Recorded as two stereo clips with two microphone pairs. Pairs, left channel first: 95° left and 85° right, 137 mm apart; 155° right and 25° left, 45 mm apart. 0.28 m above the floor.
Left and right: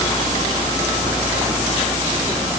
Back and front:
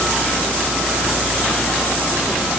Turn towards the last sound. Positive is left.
No sound to turn to.